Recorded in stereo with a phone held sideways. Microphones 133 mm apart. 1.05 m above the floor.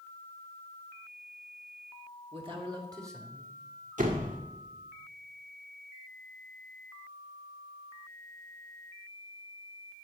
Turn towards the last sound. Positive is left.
turn(degrees=-80)